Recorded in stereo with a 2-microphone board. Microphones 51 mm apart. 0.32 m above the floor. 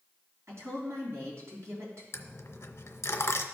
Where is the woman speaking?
65° right (ahead or behind), 3 m.